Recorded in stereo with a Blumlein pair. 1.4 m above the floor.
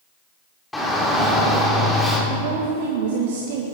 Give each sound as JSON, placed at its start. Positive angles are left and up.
{"t": 0.7, "sound": "a shout", "azimuth_deg": 5, "distance_m": 4.0}
{"t": 2.3, "sound": "a woman speaking", "azimuth_deg": -50, "distance_m": 1.9}